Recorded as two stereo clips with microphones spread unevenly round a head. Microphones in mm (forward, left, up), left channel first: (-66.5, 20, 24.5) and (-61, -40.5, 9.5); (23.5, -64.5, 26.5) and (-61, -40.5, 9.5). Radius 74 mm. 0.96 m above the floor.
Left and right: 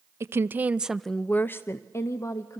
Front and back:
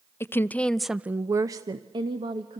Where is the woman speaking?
85° right, 0.8 m; by 2.6 s 135° left, 1.4 m.